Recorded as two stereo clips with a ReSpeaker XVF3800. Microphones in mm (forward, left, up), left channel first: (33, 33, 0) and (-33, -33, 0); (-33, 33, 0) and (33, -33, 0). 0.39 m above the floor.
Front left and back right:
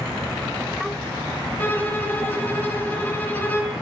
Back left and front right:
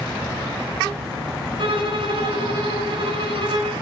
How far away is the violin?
About 3 m.